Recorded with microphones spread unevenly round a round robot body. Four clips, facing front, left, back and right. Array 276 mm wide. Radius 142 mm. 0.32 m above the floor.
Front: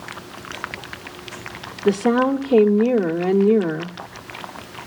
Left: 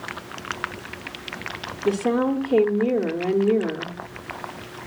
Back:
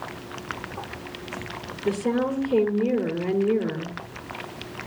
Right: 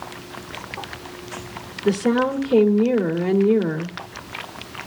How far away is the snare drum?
No snare drum in this recording.